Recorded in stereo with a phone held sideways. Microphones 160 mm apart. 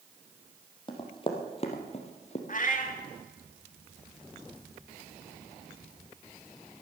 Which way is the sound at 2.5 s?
55° left (ahead or behind).